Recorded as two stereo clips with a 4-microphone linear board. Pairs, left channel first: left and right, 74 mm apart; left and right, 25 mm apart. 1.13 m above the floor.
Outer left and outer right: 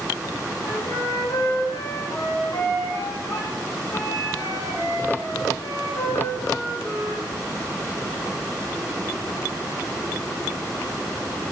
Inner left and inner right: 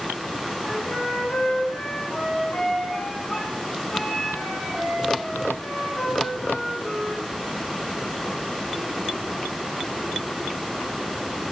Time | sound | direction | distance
0.6 | a flute | 75° left (ahead or behind) | 2 m